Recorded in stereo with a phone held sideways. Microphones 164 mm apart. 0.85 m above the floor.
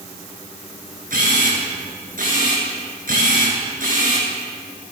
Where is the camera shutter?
55° right (ahead or behind), 9 m.